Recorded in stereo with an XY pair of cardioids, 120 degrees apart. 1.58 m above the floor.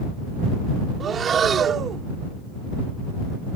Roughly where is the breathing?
Ahead right.